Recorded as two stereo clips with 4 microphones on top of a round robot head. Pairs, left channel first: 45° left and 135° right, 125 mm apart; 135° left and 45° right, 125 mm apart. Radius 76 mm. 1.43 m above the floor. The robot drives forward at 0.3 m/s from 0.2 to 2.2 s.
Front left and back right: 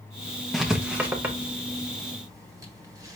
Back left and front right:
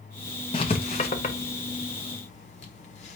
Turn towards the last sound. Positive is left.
turn(degrees=160)